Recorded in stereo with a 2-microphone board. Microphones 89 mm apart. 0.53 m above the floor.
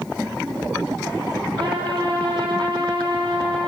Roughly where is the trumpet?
Right.